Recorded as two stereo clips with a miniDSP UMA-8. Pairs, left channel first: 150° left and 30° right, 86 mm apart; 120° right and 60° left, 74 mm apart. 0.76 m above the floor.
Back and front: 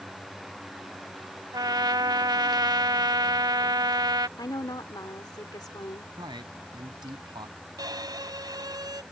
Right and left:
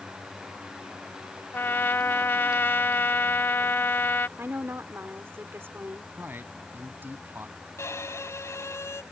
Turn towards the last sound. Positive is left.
turn(degrees=-70)